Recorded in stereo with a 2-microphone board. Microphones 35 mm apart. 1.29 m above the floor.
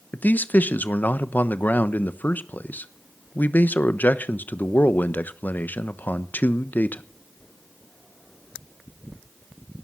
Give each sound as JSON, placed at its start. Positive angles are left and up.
{"t": 0.1, "sound": "a man speaking", "side_deg": 55, "distance_m": 1.1}